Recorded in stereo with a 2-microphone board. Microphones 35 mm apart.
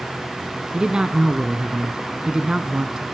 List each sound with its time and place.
0.7 s a man speaking: 25° right (ahead or behind), 1.2 m